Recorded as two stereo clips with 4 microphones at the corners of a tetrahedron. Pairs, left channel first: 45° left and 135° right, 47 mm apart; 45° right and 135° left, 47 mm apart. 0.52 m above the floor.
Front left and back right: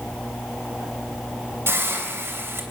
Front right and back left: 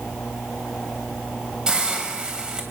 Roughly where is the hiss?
Behind right.